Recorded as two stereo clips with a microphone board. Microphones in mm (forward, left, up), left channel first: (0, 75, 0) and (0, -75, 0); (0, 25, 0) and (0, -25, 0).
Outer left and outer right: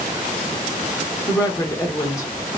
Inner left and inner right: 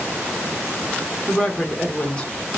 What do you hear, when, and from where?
1.3 s a woman speaking: 20° left (ahead or behind), 0.9 m